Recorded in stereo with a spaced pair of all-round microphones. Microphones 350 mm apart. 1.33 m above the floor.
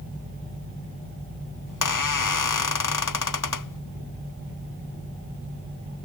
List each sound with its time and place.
1.7 s a squeak: 65° left (ahead or behind)